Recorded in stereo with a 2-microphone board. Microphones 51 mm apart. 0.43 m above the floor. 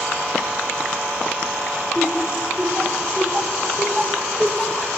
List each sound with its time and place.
1.9 s laughter: 35° right (ahead or behind), 4 m; by 4.9 s 20° left (ahead or behind), 1.5 m